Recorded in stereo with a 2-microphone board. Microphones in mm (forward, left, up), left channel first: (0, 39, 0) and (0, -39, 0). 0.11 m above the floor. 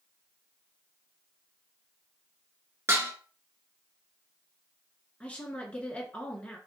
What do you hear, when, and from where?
2.9 s dishes clattering: 35° right (ahead or behind), 0.9 m
5.2 s a woman speaking: 15° left (ahead or behind), 1.1 m